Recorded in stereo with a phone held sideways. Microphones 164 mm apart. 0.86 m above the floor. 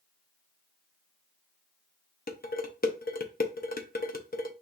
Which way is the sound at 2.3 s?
65° left (ahead or behind).